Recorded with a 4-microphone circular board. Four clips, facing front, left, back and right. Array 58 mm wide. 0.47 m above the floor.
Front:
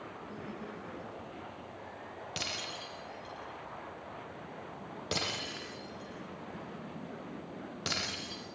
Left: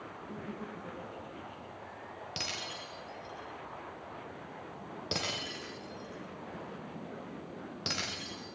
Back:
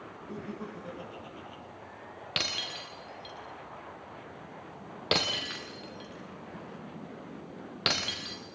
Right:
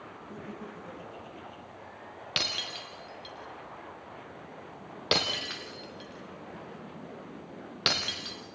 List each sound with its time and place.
0.3 s laughter: 160° left, 7 m; by 1.6 s 170° left, 8 m
2.4 s breaking glass: 130° right, 4 m